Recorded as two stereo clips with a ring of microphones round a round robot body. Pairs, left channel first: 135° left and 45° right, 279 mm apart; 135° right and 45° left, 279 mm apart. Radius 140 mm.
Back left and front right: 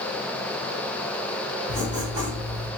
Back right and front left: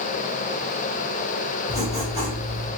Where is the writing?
100° right, 1.4 m.